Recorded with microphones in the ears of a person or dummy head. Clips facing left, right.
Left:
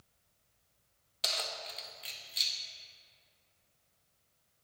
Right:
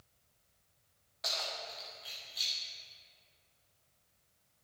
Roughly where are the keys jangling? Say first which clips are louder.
Left 1 dB; left.